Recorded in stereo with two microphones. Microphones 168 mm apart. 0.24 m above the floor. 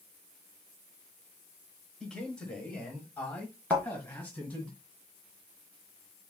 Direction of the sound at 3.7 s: 10° left (ahead or behind).